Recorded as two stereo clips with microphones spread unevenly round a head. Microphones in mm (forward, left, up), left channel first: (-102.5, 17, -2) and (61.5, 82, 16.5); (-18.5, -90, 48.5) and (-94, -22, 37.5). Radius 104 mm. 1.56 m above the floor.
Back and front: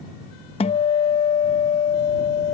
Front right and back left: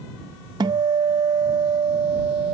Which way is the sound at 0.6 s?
160° left.